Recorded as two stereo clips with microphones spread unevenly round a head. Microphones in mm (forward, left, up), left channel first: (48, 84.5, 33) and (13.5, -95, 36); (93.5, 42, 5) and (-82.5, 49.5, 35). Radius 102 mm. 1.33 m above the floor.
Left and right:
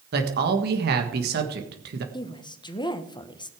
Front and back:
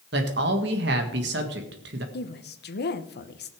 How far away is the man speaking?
About 1.6 m.